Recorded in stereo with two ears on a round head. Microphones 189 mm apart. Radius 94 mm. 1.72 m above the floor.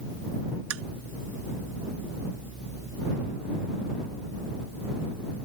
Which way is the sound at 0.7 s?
75° right (ahead or behind).